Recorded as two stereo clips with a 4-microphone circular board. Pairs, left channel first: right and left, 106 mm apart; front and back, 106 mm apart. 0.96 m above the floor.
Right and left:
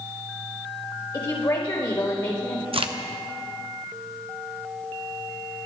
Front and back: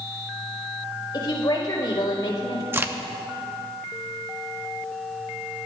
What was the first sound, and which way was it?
A woman speaking, 50° right.